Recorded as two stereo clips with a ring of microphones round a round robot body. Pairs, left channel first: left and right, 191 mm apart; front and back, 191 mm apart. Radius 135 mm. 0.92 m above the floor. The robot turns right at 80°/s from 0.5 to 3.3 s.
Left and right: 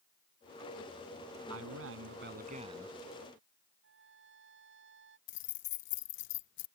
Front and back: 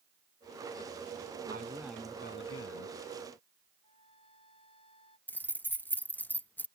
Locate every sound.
1.5 s a man speaking: 125° right; by 3.0 s 5° right
3.8 s a trumpet: 70° right
5.3 s keys jangling: 80° left